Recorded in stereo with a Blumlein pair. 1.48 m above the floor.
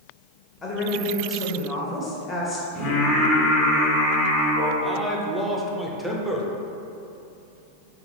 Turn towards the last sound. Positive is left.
turn(degrees=0)